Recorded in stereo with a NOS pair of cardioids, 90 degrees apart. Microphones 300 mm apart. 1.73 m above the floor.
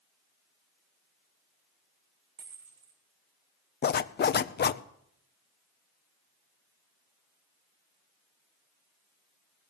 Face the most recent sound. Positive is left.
turn(degrees=35)